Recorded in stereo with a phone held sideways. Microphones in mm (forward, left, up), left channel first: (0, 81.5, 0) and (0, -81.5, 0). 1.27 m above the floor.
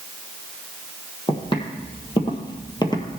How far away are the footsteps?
About 2 m.